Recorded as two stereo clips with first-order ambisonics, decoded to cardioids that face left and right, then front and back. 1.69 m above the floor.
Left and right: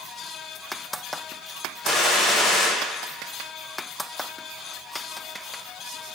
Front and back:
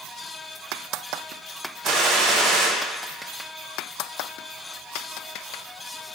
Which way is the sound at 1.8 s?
160° left.